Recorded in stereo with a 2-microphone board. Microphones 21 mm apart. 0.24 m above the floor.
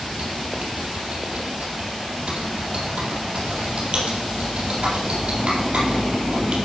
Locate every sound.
0.1 s typing on a keyboard: 55° right (ahead or behind), 4 m